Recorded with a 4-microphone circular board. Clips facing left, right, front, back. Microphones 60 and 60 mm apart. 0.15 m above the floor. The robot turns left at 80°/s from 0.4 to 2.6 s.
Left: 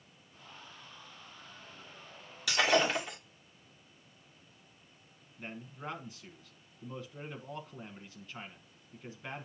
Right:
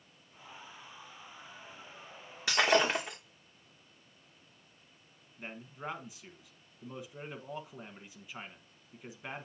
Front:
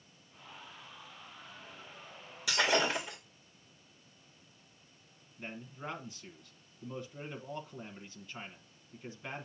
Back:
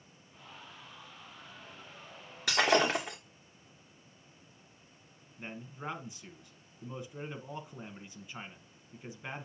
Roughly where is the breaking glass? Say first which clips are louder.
Right 1 dB, back 3 dB; behind right.